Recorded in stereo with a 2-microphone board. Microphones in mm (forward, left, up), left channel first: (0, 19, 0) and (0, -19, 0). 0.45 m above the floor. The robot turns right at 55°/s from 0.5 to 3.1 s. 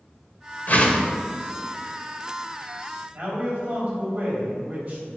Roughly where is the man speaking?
Right.